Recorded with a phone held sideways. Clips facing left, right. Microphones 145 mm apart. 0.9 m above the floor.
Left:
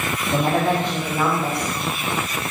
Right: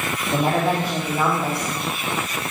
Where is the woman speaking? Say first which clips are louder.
Left 1 dB; 5° right (ahead or behind), 2.5 m.